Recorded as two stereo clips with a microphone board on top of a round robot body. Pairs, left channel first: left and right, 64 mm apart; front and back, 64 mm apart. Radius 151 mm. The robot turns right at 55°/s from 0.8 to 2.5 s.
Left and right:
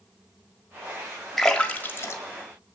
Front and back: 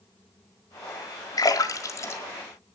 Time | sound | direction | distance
1.4 | a splash | straight ahead | 1.8 m